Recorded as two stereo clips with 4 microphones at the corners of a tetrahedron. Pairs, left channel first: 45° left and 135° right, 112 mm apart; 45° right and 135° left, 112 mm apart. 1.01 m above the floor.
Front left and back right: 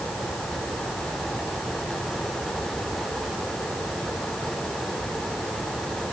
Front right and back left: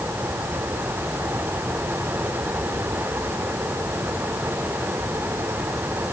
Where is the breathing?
I don't hear breathing.